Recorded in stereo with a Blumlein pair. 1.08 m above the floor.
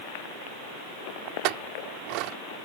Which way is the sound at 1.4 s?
40° right.